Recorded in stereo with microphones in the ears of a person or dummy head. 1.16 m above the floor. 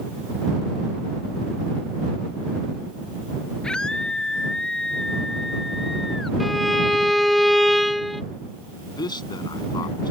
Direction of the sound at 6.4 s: Centre (ahead or behind).